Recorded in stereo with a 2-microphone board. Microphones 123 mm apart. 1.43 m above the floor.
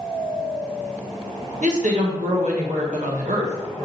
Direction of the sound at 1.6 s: 80° right.